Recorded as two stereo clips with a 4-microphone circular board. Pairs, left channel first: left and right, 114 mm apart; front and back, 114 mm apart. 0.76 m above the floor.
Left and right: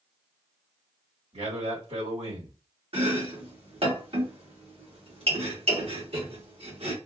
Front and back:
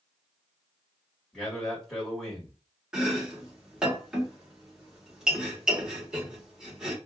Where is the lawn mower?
No lawn mower in this recording.